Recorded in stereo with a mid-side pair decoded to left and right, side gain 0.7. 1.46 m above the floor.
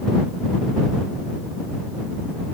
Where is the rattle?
I don't hear a rattle.